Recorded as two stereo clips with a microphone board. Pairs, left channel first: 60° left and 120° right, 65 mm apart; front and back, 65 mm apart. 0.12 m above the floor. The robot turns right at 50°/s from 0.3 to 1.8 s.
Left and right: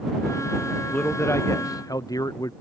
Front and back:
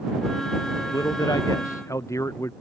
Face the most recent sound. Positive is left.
turn(degrees=40)